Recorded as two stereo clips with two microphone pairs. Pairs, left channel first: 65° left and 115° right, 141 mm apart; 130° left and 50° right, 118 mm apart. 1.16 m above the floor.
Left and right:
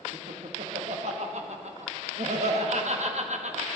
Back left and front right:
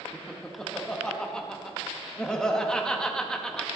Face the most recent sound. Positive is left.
turn(degrees=-145)